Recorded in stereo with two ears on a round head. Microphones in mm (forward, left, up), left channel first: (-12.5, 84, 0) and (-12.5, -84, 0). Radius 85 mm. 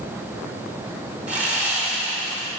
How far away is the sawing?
About 2 m.